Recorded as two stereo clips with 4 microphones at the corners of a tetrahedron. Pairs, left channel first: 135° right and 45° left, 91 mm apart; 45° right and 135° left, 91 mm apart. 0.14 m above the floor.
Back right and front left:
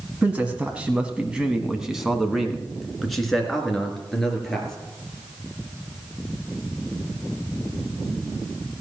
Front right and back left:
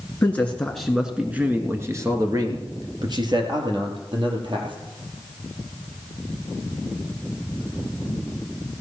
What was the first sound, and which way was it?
A man speaking, 10° right.